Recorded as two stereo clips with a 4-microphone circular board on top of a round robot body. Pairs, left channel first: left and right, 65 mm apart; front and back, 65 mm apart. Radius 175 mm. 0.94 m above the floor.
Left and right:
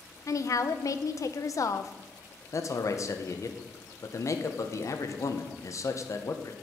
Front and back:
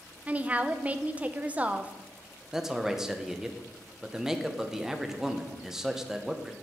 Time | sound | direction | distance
0.3 | a woman speaking | 115° left | 0.7 m
2.5 | a man speaking | 100° left | 1.1 m